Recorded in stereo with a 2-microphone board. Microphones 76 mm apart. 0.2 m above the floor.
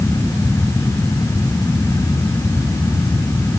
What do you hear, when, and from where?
Only background noise.